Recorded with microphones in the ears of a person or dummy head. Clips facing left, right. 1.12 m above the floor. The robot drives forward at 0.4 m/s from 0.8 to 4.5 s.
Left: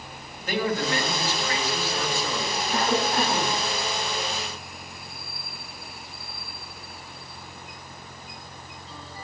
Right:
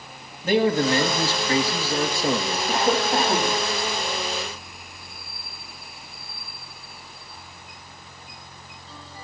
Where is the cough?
25° right (ahead or behind), 4 m; by 3.6 s 20° right (ahead or behind), 4.5 m.